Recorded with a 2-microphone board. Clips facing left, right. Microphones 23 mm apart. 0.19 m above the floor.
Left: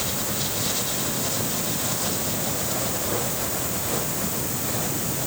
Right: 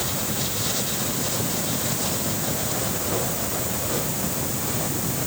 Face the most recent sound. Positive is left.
No sound to turn to.